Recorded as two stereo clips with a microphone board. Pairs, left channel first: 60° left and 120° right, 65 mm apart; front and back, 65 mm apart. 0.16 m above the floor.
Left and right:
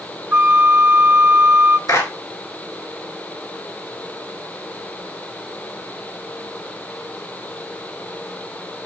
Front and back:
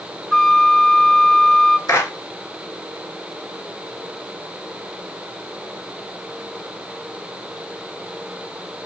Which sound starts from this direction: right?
A flute, at 0.3 s.